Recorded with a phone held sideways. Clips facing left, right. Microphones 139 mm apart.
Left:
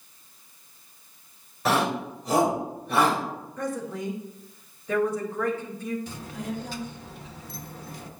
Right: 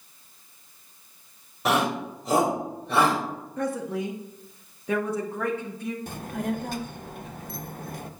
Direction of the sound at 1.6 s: 20° right (ahead or behind).